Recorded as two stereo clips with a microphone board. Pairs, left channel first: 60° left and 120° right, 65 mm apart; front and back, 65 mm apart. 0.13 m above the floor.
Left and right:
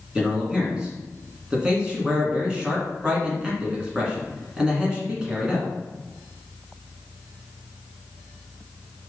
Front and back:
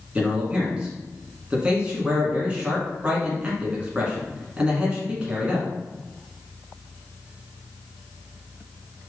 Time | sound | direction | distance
0.1 | a man speaking | 160° right | 1.6 m